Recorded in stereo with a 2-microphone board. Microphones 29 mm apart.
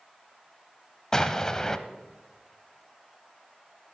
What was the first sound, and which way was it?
An explosion, 20° left (ahead or behind).